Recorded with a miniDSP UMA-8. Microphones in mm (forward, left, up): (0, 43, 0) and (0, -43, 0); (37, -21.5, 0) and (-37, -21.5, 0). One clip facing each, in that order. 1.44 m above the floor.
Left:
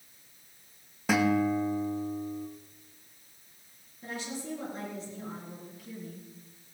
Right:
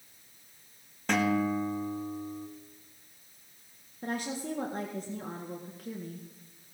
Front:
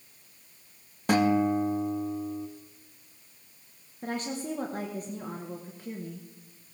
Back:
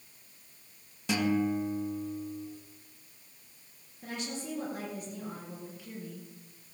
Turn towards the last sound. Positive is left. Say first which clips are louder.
# right 4 dB, front 5 dB
turn(degrees=-50)